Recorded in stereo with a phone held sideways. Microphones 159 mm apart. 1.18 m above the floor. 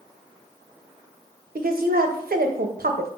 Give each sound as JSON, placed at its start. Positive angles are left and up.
{"t": 1.6, "sound": "a woman speaking", "side_deg": -75, "distance_m": 0.5}